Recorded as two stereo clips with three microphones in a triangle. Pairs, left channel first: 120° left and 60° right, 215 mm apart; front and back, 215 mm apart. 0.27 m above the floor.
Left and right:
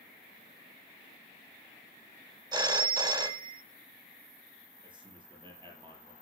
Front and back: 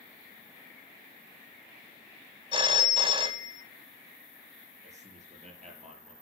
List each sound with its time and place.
2.5 s a phone ringing: 125° right, 0.9 m
4.8 s a man speaking: 125° right, 5.5 m